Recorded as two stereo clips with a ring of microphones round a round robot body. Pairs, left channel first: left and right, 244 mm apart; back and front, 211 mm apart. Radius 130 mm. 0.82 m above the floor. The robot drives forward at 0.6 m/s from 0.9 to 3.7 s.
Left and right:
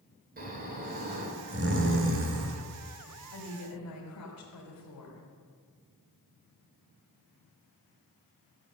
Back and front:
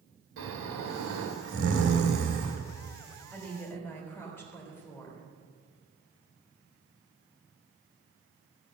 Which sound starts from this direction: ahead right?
Snoring, at 0.4 s.